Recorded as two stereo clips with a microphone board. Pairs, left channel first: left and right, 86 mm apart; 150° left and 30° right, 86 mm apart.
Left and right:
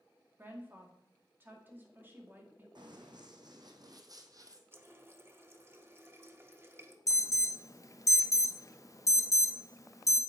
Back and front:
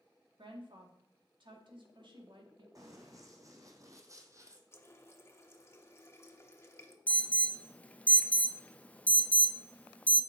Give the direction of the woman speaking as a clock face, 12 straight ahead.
1 o'clock.